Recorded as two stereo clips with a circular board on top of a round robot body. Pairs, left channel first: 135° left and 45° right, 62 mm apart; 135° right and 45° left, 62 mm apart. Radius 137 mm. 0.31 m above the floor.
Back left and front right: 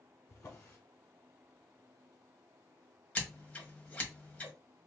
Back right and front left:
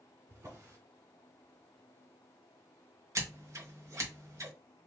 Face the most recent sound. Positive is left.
turn(degrees=70)